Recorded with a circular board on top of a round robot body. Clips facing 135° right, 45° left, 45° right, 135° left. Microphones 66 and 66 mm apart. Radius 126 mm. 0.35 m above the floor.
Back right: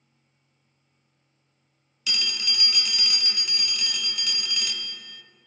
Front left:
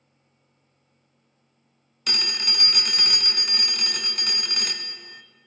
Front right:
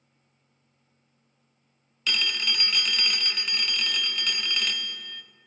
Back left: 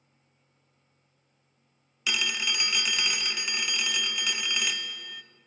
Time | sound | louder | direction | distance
2.1 | a phone ringing | front left 1 dB, front right 1 dB | 55° left | 0.5 m